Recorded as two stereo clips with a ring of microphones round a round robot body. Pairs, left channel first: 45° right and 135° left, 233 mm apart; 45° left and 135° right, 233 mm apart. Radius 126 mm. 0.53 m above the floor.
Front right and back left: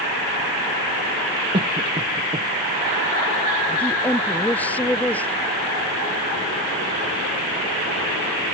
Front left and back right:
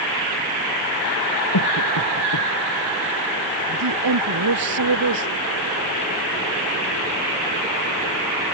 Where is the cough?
65° left.